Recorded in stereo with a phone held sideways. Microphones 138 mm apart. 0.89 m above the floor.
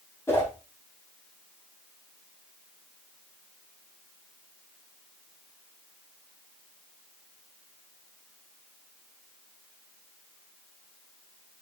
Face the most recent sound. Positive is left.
turn(degrees=20)  # may be behind; listen again after turning